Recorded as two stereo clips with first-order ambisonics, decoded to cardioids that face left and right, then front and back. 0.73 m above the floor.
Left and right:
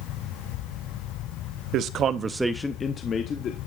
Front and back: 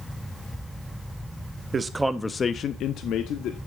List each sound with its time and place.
1.7 s a man speaking: 115° right, 0.8 m; by 3.6 s 40° left, 1.3 m